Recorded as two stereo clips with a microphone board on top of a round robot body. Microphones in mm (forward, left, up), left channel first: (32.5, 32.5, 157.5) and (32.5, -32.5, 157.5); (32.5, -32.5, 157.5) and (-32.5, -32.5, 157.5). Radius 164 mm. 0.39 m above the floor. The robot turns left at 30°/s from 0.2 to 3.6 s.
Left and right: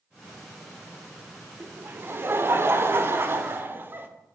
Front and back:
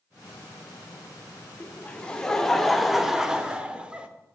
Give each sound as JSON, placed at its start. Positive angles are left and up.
{"t": 1.6, "sound": "laughter", "azimuth_deg": -55, "distance_m": 1.0}